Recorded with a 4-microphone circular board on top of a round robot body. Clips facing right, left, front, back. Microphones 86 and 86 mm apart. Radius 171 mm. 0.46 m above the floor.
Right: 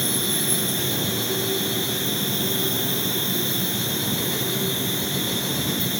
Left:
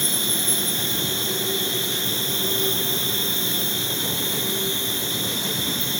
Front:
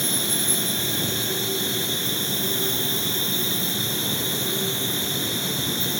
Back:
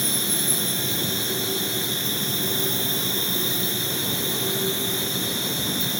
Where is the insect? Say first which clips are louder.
Right 2 dB, even; 100° left, 6 m.